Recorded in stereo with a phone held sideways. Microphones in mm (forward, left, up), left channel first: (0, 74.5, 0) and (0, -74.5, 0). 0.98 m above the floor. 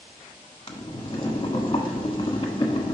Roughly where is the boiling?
Left.